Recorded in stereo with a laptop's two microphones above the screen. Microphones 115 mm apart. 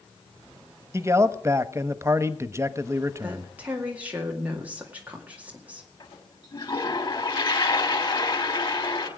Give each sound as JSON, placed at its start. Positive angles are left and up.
{"t": 0.9, "sound": "a man speaking", "side_deg": -25, "distance_m": 0.9}
{"t": 3.2, "sound": "a woman speaking", "side_deg": -15, "distance_m": 2.0}
{"t": 6.0, "sound": "a toilet flushing", "side_deg": 45, "distance_m": 2.5}